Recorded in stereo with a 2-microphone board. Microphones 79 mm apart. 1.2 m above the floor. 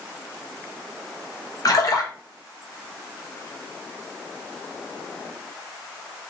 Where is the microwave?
I don't hear a microwave.